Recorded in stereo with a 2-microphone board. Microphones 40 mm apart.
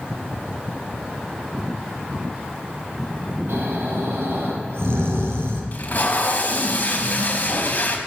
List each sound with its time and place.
3.5 s snoring: 80° right, 6 m
5.7 s tape being pulled: 45° left (ahead or behind), 3.5 m